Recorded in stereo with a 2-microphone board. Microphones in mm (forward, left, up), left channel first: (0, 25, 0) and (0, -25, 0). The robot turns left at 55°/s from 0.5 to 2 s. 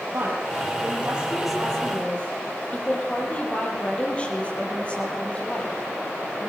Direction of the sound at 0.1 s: 125° right.